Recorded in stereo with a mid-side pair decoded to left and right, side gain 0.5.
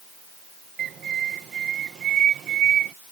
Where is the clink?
I don't hear a clink.